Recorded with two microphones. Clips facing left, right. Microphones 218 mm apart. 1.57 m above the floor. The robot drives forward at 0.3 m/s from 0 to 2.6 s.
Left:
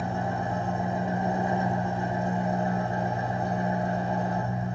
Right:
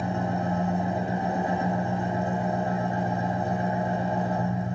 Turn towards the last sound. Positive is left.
turn(degrees=-60)  # may be behind; listen again after turning